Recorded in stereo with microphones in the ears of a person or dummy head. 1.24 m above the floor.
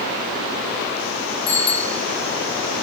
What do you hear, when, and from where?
1.5 s a bicycle bell: 30° left (ahead or behind), 6.5 m